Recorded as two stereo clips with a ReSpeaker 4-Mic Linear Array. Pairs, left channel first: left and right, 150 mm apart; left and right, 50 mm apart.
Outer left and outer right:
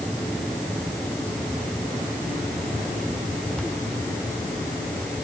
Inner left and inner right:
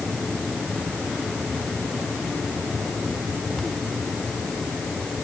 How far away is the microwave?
No microwave in this recording.